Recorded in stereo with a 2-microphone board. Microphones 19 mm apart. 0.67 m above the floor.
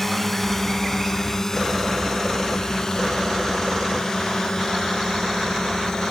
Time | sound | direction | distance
0.0 | a drone | 10° left (ahead or behind) | ?